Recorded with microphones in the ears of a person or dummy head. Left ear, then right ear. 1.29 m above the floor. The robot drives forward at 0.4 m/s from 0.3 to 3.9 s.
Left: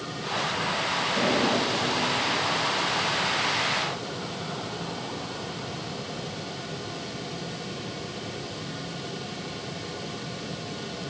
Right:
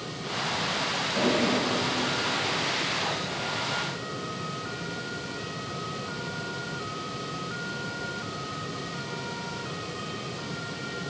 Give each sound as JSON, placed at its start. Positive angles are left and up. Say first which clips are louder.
{"t": 1.1, "sound": "a toilet flushing", "louder": "even", "side_deg": -25, "distance_m": 8.5}